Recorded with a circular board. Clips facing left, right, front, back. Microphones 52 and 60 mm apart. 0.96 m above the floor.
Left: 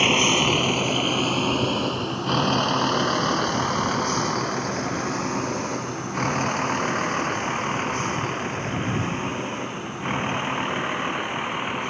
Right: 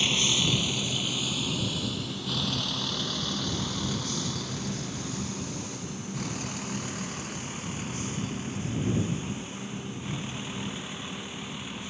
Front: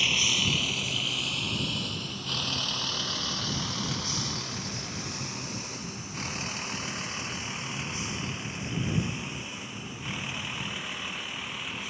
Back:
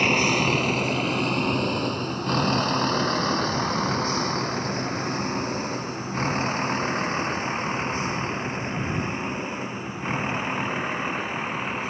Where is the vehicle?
135° left; by 11.9 s 130° left.